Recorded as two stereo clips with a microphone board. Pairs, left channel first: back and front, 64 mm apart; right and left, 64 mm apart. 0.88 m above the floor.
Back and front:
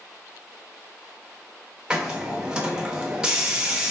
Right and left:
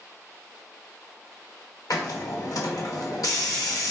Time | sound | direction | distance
1.9 | a hiss | 75° right | 0.7 m